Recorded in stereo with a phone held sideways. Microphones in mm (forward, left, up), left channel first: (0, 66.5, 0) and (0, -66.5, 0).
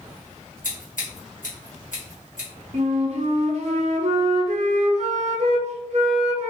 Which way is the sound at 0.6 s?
75° left (ahead or behind).